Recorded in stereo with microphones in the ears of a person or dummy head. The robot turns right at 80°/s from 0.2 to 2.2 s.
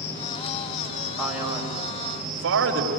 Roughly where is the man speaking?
Centre.